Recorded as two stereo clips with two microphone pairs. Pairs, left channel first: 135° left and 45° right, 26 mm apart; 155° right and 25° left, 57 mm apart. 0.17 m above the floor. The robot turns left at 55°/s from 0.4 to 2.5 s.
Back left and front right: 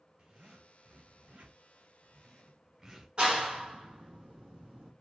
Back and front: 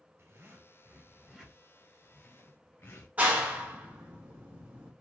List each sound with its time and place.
0.2 s a zipper: straight ahead, 1.2 m; by 3.1 s 115° right, 1.2 m
3.2 s a clap: 25° right, 1.1 m